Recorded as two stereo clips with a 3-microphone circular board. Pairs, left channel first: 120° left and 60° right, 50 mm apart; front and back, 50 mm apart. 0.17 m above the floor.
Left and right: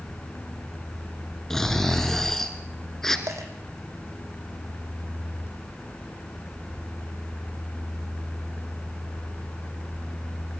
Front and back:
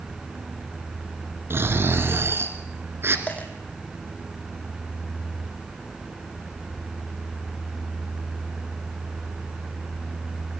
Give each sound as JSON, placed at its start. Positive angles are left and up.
{"t": 1.5, "sound": "snoring", "azimuth_deg": -160, "distance_m": 2.5}
{"t": 3.3, "sound": "a dropped coin", "azimuth_deg": -65, "distance_m": 3.5}